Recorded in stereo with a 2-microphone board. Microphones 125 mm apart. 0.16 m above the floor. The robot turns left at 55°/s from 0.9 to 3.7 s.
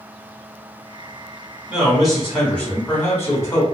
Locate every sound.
1.7 s a man speaking: 5° right (ahead or behind), 1.1 m; by 3.6 s 25° left (ahead or behind), 1.1 m